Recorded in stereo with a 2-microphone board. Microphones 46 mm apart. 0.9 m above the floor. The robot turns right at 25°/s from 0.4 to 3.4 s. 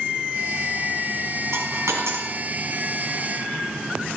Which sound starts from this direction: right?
A dropped coin, at 1.5 s.